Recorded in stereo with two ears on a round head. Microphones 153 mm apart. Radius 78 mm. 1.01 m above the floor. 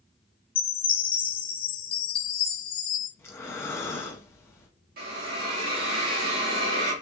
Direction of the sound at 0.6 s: 55° left (ahead or behind).